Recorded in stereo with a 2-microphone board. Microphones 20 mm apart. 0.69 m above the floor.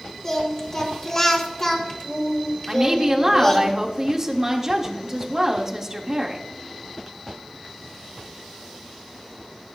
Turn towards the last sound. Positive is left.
turn(degrees=-15)  # may be behind; listen again after turning